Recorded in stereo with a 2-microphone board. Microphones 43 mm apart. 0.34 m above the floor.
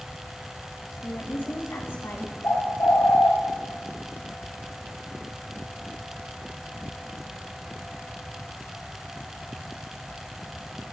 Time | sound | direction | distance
1.0 | a woman speaking | 70° left (ahead or behind) | 3.5 m
2.4 | a bird | 75° left (ahead or behind) | 3.5 m